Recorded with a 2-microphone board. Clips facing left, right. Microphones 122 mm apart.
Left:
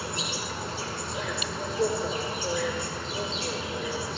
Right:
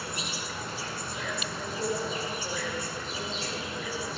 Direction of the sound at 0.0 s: 30° left (ahead or behind).